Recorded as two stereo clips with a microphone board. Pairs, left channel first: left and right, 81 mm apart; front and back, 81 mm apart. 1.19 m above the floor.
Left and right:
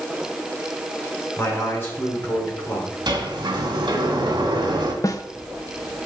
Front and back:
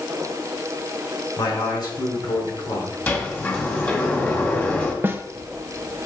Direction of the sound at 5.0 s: 120° left.